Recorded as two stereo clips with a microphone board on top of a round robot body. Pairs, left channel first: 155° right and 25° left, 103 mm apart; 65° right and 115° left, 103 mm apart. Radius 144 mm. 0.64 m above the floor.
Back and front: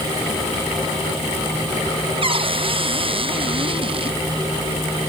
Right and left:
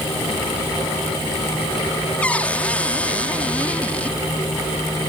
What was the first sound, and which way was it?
A cupboard door, 10° left.